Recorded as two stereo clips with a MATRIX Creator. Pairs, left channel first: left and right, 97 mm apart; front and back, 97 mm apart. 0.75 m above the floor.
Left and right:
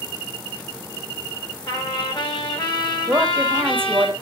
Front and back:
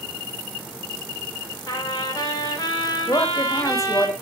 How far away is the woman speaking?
About 1.0 m.